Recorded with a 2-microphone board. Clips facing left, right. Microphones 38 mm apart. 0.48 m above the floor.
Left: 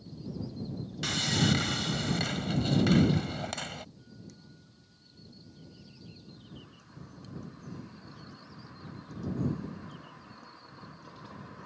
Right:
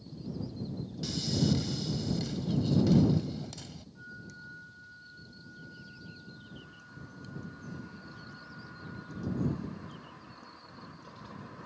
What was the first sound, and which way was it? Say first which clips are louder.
Sawing: left 3 dB; 65° left (ahead or behind).